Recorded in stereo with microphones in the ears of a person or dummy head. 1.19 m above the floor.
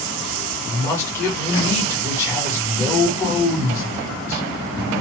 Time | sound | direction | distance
0.7 | a man speaking | 15° left (ahead or behind) | 1.4 m